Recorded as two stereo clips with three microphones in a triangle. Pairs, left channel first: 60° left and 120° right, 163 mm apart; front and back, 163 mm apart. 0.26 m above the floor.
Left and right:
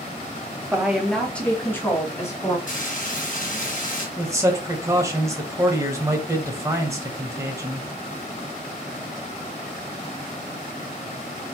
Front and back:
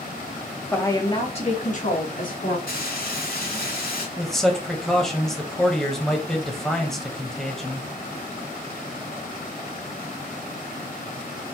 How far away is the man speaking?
About 1.2 m.